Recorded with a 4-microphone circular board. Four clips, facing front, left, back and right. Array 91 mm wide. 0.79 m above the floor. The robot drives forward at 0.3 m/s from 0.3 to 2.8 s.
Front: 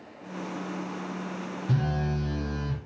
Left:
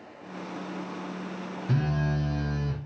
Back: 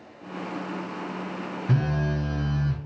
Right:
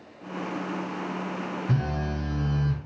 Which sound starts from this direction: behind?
A phone buzzing, at 1.7 s.